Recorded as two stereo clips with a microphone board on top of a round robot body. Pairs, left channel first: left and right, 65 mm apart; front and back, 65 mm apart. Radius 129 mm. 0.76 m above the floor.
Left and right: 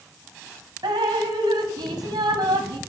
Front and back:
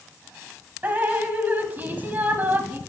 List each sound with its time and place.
0.8 s dripping: 115° right, 1.3 m